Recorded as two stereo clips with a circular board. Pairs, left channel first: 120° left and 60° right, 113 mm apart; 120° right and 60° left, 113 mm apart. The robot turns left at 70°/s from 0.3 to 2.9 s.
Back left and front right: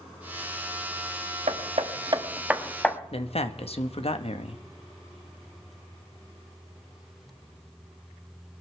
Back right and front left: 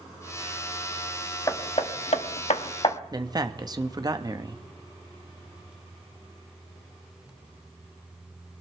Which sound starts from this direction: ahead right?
Hammering, at 1.5 s.